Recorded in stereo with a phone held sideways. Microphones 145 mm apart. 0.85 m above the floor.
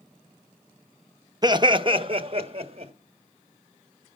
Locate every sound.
1.4 s laughter: 30° right (ahead or behind), 0.6 m; by 2.9 s 45° right (ahead or behind), 1.5 m